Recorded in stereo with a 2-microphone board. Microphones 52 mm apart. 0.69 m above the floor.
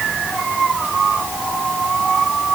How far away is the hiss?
No hiss in this recording.